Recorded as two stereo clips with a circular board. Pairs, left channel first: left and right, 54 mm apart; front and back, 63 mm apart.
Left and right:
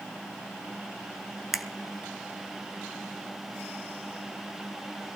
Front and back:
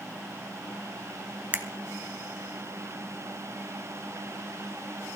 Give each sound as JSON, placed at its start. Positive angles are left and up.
{"t": 1.5, "sound": "a finger snap", "azimuth_deg": -170, "distance_m": 1.0}